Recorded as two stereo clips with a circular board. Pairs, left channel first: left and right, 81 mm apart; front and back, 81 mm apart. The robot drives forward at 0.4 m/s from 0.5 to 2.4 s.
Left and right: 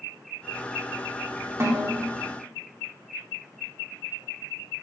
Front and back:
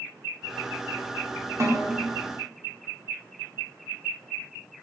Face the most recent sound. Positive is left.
turn(degrees=-140)